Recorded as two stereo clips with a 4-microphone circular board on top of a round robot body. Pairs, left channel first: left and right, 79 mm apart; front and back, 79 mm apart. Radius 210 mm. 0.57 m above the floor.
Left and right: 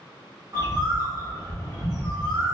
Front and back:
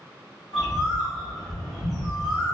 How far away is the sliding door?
No sliding door in this recording.